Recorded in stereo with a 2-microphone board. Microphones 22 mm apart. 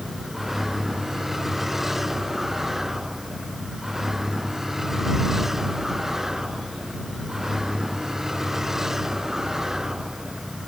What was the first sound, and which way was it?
A vehicle, 10° right (ahead or behind).